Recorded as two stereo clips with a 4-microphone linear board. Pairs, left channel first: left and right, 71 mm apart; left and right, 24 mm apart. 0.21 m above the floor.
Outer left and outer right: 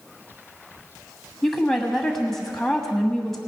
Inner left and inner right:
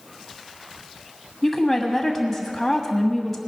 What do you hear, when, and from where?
1.4 s a woman speaking: 5° left (ahead or behind), 1.2 m